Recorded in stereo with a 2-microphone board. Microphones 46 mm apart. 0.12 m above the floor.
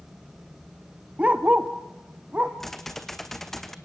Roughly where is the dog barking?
Right.